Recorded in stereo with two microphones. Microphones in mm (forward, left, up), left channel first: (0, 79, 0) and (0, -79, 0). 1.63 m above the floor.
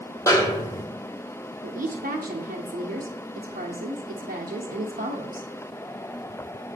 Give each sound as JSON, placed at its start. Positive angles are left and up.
{"t": 0.3, "sound": "a snare drum", "side_deg": 20, "distance_m": 1.3}
{"t": 1.6, "sound": "a woman speaking", "side_deg": -80, "distance_m": 0.9}